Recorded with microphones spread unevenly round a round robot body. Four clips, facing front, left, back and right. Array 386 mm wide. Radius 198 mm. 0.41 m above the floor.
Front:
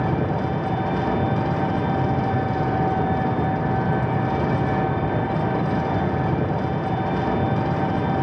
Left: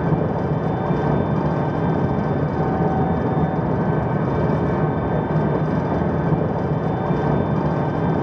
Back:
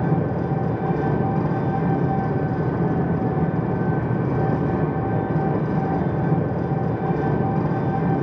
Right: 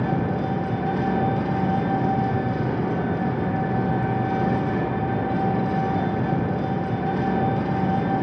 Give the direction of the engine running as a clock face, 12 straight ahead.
9 o'clock.